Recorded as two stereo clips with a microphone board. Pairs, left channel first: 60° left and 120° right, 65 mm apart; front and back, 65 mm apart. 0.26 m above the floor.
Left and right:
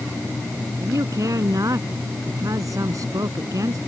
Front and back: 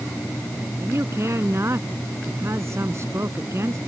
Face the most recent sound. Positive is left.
turn(degrees=-140)